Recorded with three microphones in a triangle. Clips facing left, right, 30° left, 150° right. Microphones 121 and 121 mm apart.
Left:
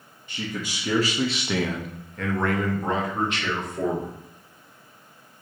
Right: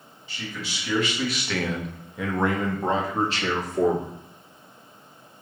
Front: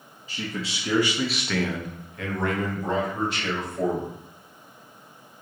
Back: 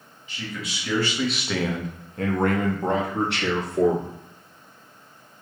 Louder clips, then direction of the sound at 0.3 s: Left 4 dB, front 2 dB; 70° left.